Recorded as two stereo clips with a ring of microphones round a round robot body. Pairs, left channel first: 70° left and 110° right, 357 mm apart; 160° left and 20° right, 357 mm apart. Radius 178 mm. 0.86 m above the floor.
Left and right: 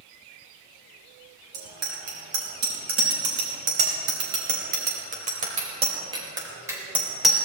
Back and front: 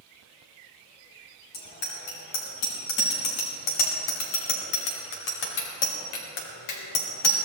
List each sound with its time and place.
1.5 s a bicycle bell: 160° right, 4.5 m; by 7.4 s 155° left, 2.5 m